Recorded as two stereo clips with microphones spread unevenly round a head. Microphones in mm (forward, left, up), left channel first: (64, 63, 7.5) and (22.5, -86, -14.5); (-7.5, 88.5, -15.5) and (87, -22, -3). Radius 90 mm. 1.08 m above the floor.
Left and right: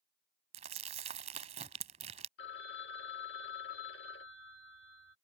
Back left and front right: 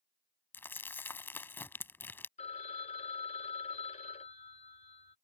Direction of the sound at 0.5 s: 150° right.